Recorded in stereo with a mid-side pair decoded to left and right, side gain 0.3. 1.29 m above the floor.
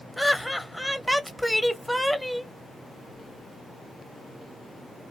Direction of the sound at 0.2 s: Straight ahead.